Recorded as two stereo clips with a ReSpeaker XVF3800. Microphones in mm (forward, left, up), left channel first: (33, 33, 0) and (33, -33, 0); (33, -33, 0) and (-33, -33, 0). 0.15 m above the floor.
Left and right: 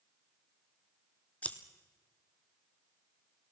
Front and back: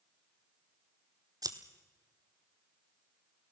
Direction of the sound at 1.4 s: 160° left.